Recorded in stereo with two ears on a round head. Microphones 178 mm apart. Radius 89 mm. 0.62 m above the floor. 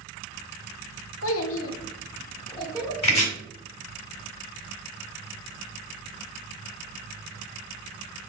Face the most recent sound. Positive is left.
turn(degrees=30)  # may be behind; listen again after turning